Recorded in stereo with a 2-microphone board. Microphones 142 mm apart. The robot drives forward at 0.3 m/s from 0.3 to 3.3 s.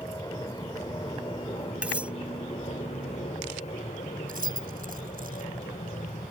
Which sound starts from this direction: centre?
Cutlery clinking, at 1.8 s.